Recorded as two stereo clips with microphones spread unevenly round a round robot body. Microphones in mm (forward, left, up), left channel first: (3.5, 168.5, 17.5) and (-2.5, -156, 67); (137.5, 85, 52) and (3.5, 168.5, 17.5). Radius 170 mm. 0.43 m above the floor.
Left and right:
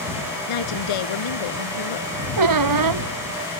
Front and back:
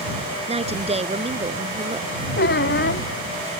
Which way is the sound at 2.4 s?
60° right.